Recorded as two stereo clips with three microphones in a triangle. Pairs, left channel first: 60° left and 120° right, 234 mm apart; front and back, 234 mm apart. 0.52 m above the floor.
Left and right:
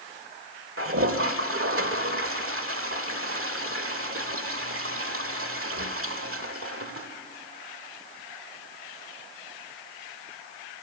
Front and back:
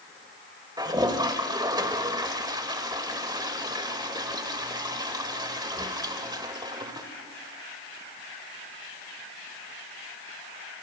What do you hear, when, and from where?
0.8 s a toilet flushing: 110° right, 1.3 m